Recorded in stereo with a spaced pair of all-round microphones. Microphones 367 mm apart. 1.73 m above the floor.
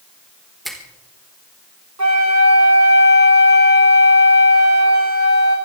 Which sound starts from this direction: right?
A flute, at 2.0 s.